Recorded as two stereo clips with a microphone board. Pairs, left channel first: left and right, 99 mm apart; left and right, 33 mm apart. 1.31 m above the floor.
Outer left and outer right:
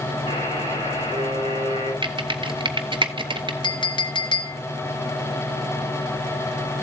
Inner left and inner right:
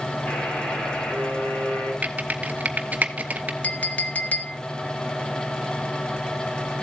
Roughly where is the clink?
Left.